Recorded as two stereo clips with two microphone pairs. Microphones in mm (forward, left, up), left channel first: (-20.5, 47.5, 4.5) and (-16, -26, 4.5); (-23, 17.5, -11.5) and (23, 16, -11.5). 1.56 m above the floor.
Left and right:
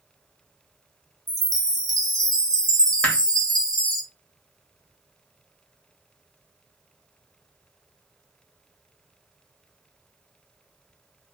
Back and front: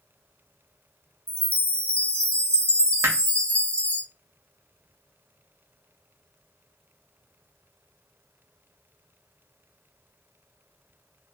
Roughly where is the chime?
Behind right.